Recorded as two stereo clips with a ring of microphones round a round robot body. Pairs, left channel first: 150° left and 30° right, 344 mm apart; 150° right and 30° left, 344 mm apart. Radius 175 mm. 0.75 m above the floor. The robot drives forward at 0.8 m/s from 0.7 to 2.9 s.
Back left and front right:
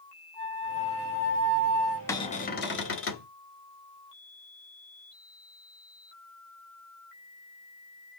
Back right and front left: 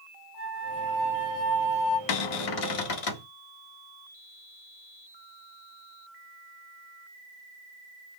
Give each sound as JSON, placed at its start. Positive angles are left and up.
{"t": 0.3, "sound": "a flute", "azimuth_deg": -45, "distance_m": 2.0}
{"t": 2.1, "sound": "a cupboard door", "azimuth_deg": -130, "distance_m": 0.7}